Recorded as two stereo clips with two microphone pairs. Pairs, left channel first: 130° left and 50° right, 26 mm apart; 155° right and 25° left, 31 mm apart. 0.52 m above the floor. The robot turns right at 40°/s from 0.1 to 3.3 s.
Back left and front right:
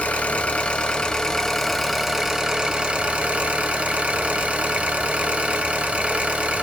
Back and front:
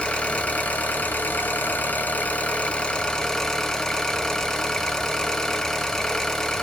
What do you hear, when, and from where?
0.0 s an engine running: 150° left, 0.7 m; by 6.6 s 80° right, 0.7 m